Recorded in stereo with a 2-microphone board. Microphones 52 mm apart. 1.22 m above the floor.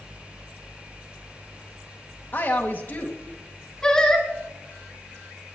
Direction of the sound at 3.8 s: 15° left (ahead or behind).